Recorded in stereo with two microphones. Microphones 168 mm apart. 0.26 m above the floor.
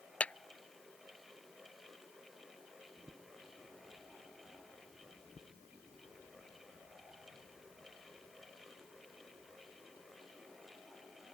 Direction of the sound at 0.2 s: 10° left (ahead or behind).